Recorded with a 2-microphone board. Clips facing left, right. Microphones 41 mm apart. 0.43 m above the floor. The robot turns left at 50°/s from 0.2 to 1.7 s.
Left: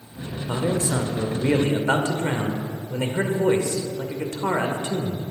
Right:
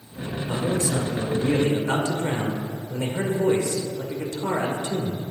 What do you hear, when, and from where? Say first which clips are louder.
0.5 s a man speaking: left 1 dB; 145° left, 1.0 m; by 5.2 s 85° left, 1.0 m